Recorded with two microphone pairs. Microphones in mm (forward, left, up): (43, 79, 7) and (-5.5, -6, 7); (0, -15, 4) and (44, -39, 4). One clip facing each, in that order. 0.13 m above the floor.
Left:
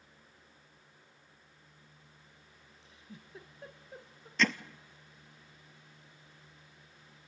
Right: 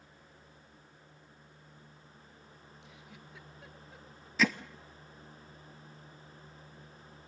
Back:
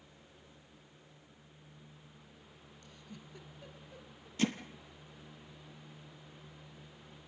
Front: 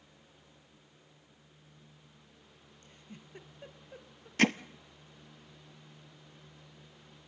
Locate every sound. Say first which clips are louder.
2.8 s a giggle: left 3 dB, even; 15° left, 1.6 m
4.4 s hammering: right 1 dB, front 6 dB; 30° right, 0.7 m